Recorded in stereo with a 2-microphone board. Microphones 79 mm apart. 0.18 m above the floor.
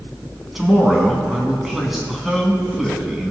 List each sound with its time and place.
0.6 s a man speaking: 5° right (ahead or behind), 1.2 m